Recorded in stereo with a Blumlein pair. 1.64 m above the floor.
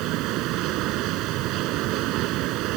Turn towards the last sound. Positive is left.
turn(degrees=-40)